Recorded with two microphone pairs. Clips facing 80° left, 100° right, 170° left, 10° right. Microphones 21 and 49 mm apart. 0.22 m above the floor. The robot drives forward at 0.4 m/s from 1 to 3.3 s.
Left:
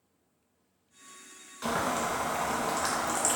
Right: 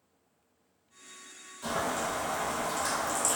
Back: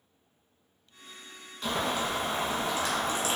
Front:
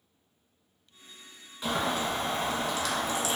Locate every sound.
1.6 s boiling: 70° left, 0.6 m; by 3.4 s 130° left, 0.8 m